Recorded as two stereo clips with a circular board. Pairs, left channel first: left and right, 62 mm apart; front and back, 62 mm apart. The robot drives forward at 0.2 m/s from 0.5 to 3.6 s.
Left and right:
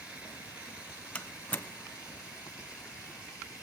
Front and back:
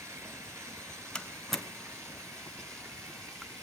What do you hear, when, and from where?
0.0 s running water: 160° right, 2.5 m; by 3.6 s 165° right, 3 m
1.1 s a door slam: 65° left, 1.1 m; by 1.6 s 75° left, 1.1 m